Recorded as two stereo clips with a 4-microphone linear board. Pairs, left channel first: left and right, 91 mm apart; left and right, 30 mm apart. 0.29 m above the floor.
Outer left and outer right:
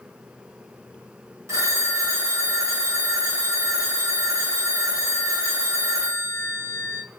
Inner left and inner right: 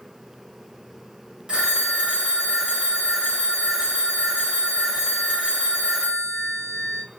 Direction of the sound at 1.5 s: 30° right (ahead or behind).